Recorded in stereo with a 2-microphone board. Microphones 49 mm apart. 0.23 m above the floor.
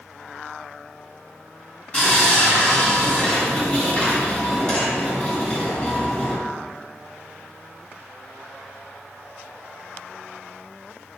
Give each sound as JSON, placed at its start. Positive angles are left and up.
{"t": 1.9, "sound": "sawing", "side_deg": 25, "distance_m": 1.4}